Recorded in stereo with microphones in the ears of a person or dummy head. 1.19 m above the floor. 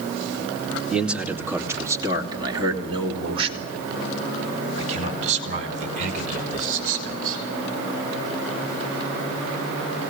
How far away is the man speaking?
About 2.5 m.